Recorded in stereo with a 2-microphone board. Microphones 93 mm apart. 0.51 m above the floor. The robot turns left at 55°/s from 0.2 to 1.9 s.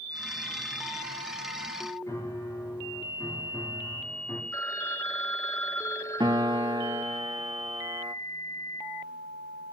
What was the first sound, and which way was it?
A piano, 35° left (ahead or behind).